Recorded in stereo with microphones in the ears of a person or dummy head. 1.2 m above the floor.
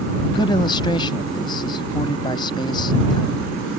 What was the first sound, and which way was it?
A man speaking, 25° left (ahead or behind).